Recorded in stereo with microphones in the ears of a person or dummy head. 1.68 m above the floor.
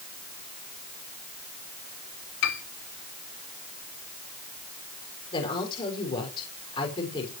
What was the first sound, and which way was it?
A piano, 75° left (ahead or behind).